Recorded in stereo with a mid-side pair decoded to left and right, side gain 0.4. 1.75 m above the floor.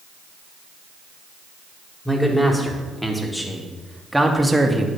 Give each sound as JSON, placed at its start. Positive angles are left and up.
{"t": 2.0, "sound": "a man speaking", "azimuth_deg": 10, "distance_m": 4.0}